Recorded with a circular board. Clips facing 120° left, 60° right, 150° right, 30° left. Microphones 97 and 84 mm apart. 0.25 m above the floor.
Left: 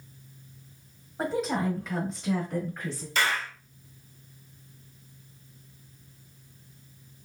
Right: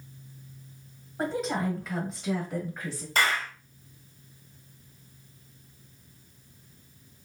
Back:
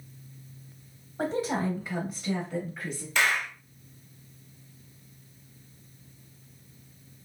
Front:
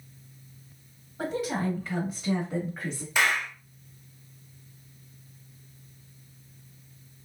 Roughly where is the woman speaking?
Behind right.